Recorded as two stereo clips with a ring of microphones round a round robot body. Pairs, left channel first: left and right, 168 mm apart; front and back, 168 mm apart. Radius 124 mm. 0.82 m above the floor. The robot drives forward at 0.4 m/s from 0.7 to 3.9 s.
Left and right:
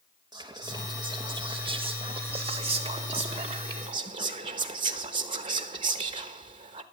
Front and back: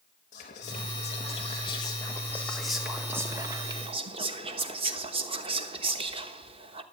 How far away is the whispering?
About 1.2 m.